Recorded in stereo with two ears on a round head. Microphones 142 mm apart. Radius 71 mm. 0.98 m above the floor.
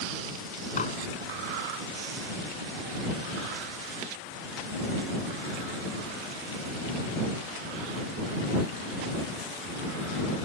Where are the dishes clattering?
45° left (ahead or behind).